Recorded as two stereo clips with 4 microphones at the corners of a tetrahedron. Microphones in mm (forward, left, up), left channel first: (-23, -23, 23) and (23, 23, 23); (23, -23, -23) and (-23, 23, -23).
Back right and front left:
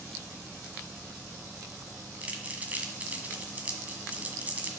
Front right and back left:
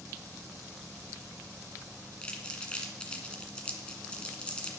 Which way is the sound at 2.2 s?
10° left.